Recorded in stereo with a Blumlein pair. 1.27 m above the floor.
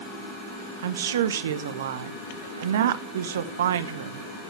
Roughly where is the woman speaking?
Ahead right.